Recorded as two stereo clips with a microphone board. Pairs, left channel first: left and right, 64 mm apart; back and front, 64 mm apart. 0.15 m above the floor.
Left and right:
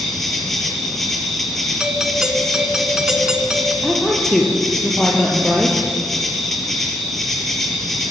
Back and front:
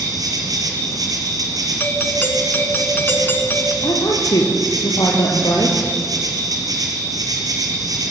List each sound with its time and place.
0.0 s an insect: 5° left, 5 m
1.8 s a doorbell: 160° right, 1.7 m
3.8 s a woman speaking: 175° left, 4.5 m